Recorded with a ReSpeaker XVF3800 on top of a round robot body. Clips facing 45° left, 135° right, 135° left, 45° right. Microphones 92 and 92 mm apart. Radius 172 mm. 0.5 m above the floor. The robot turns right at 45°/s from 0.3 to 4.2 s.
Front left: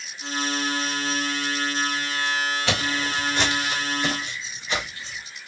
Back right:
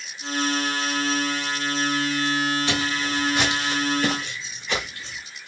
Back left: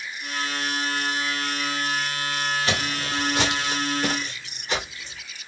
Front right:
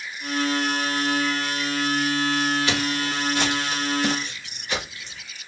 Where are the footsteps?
75° left, 0.8 m; by 5.2 s 160° right, 3 m.